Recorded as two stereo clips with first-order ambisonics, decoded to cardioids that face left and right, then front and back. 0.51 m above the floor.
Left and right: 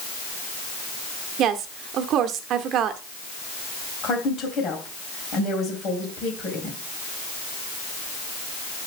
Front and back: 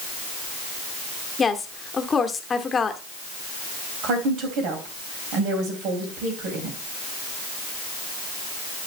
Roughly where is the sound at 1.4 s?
Ahead right.